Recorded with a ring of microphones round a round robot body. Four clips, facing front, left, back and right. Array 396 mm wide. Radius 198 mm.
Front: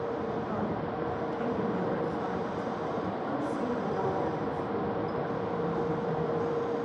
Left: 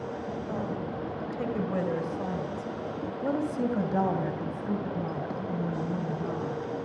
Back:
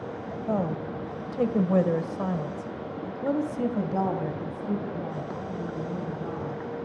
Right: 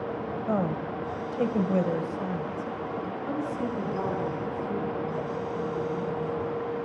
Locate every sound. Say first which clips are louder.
0.5 s a woman speaking: right 7 dB, back 3 dB; 135° right, 2.5 m; by 6.6 s 115° left, 5 m